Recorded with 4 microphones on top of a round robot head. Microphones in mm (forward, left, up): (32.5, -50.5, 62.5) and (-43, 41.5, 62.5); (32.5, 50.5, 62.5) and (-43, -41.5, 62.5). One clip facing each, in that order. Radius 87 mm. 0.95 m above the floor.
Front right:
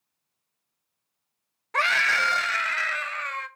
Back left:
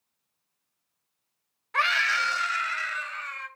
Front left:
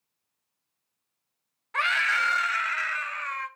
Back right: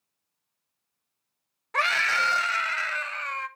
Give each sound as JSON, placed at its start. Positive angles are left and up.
{"t": 1.7, "sound": "a scream", "azimuth_deg": -85, "distance_m": 0.8}